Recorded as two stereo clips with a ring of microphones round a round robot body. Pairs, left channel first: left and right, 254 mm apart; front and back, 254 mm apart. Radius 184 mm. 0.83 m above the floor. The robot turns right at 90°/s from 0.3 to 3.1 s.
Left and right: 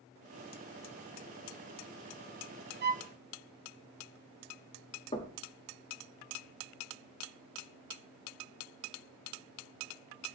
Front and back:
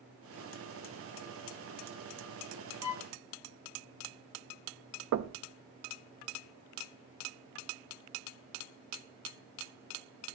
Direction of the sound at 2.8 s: 40° right.